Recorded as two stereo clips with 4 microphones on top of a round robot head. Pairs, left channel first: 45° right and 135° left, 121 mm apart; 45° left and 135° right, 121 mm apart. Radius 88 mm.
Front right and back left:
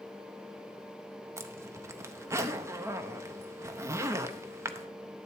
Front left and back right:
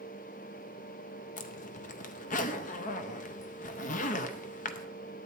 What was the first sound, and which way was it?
A zipper, 65° left.